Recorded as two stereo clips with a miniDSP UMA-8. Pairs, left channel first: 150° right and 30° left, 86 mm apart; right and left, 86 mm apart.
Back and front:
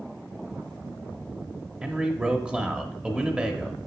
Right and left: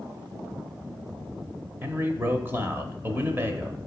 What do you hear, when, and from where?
1.8 s a man speaking: 85° left, 0.9 m